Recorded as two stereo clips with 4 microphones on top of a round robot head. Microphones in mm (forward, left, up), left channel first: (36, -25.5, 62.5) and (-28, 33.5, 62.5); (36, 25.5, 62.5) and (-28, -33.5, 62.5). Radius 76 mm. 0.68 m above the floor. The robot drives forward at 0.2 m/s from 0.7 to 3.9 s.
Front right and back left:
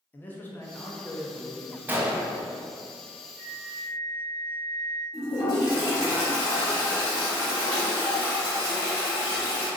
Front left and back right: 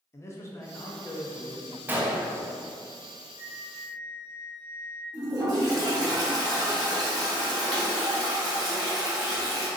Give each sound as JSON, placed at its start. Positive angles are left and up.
{"t": 0.1, "sound": "a man speaking", "azimuth_deg": 10, "distance_m": 0.7}
{"t": 1.9, "sound": "a gunshot", "azimuth_deg": 180, "distance_m": 0.7}
{"t": 3.4, "sound": "a flute", "azimuth_deg": -140, "distance_m": 1.3}
{"t": 5.1, "sound": "a toilet flushing", "azimuth_deg": -95, "distance_m": 1.6}